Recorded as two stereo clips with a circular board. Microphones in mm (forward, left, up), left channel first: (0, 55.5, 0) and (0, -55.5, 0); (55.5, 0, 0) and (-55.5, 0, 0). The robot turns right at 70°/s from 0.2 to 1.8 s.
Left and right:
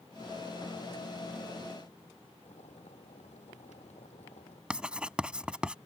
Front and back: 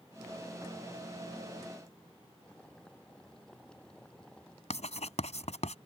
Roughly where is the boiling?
Left.